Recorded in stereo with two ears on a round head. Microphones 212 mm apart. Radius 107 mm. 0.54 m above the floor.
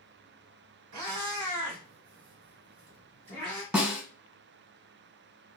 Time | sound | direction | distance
0.9 | a cat meowing | 85° right | 1.1 m
3.7 | a snare drum | 10° right (ahead or behind) | 1.2 m